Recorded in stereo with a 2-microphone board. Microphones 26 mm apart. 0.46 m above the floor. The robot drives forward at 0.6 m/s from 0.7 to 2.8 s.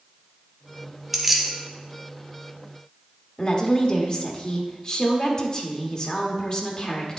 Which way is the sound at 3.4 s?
35° left (ahead or behind).